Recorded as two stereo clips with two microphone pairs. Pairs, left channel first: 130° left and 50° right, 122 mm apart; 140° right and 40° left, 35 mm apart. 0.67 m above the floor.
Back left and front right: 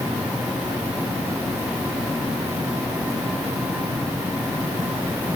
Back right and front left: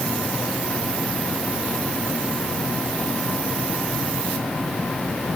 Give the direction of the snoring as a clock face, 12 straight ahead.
I don't hear snoring.